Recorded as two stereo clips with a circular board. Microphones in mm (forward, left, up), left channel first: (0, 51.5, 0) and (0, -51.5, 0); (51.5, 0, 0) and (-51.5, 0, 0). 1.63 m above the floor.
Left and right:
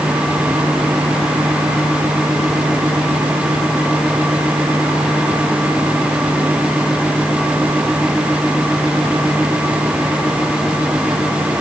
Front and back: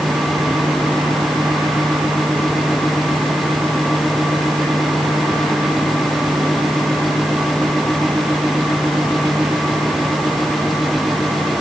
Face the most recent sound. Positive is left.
No sound to turn to.